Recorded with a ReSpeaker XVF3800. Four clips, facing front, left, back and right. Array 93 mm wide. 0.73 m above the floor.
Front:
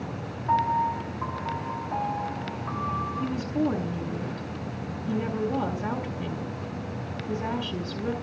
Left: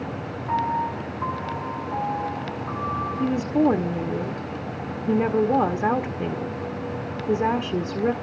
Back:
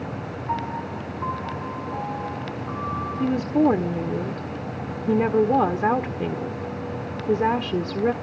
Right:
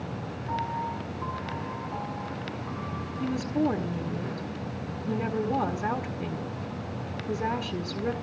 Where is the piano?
25° left, 6 m.